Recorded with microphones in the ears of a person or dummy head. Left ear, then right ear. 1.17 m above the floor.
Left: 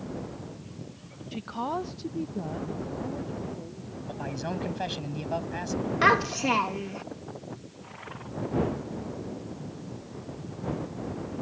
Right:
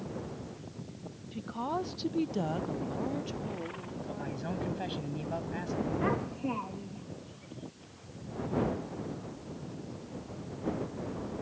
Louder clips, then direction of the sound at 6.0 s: Left 16 dB; 45° left (ahead or behind).